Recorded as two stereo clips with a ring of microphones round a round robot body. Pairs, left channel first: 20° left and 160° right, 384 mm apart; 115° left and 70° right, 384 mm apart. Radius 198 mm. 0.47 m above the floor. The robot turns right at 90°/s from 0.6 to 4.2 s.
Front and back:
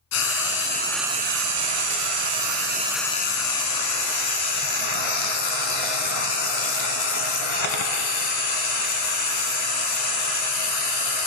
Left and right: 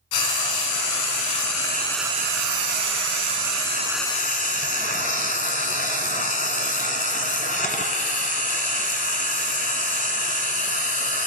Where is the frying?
80° left, 1.1 m; by 11.3 s 40° left, 1.1 m.